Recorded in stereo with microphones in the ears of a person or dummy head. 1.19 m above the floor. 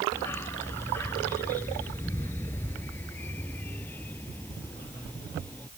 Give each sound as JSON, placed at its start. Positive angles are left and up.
{"t": 0.1, "sound": "a dog barking", "side_deg": 15}